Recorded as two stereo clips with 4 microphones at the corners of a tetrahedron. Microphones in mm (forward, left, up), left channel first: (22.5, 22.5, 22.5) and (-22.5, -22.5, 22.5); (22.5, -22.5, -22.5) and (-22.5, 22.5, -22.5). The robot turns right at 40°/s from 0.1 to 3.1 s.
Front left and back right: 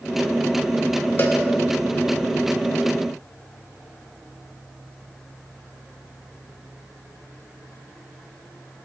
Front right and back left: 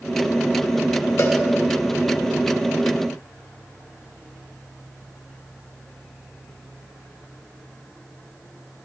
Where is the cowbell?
5° right, 1.7 m; by 1.4 s 5° left, 1.7 m.